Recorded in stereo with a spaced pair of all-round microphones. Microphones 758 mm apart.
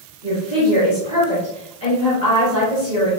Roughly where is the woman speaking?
Left.